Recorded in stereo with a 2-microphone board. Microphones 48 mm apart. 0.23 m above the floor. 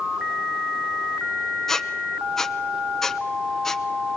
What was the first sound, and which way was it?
A squeak, 10° left (ahead or behind).